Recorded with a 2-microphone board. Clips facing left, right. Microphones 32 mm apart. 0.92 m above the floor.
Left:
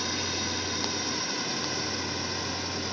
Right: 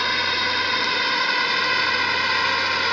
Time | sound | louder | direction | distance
0.0 | a drone | right 10 dB | 50° right (ahead or behind) | ?